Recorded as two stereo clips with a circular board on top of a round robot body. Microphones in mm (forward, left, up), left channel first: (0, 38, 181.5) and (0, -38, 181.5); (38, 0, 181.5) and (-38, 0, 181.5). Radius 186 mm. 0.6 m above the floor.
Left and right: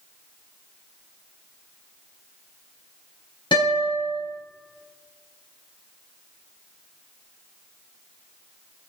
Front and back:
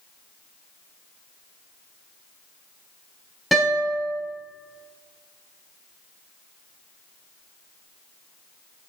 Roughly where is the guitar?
Left.